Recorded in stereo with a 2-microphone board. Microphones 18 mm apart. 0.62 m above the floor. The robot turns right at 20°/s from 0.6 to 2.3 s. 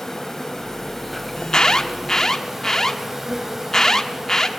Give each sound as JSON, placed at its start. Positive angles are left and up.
{"t": 0.0, "sound": "an insect", "azimuth_deg": 160, "distance_m": 2.5}
{"t": 1.4, "sound": "an alarm", "side_deg": 40, "distance_m": 1.1}